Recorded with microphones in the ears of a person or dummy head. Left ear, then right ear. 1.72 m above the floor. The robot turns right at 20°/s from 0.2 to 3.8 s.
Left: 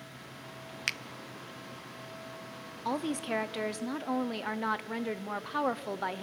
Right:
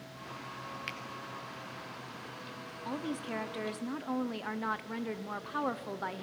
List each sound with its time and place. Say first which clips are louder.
0.9 s a finger snap: left 10 dB; 30° left (ahead or behind), 0.5 m
2.9 s a woman speaking: left 6 dB; 30° left (ahead or behind), 0.6 m; by 6.2 s 15° left (ahead or behind), 0.6 m